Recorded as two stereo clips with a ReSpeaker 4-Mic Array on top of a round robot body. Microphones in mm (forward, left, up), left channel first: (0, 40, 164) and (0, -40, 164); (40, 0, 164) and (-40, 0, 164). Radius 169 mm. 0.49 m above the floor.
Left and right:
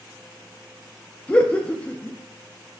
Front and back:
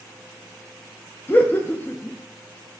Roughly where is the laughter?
Ahead left.